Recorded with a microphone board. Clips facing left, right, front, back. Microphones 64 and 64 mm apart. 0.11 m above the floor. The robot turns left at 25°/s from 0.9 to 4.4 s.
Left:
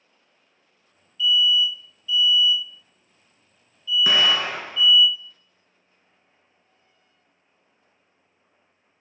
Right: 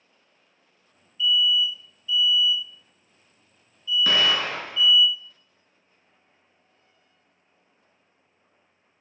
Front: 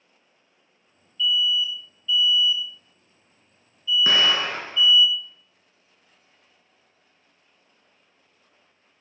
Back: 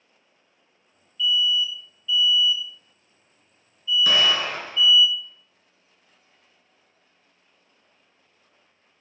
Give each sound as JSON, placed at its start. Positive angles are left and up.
{"t": 1.2, "sound": "an alarm", "azimuth_deg": -80, "distance_m": 1.4}
{"t": 4.1, "sound": "an explosion", "azimuth_deg": 20, "distance_m": 0.6}